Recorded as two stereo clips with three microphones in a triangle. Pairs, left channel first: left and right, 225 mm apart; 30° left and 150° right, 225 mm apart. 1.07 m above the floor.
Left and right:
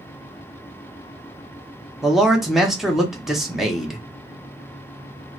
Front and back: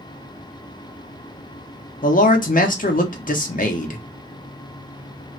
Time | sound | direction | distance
2.0 | a man speaking | straight ahead | 0.6 m